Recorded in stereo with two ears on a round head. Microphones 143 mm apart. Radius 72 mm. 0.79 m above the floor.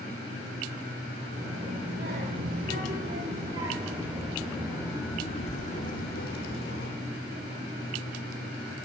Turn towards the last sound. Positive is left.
turn(degrees=70)  # may be behind; listen again after turning